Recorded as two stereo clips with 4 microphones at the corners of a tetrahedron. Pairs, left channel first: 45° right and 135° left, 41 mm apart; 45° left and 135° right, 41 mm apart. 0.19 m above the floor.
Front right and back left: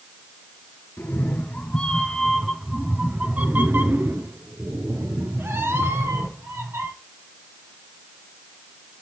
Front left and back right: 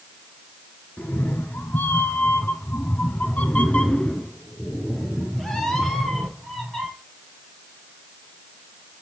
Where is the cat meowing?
Straight ahead, 1.6 m; by 6.9 s 130° left, 3 m.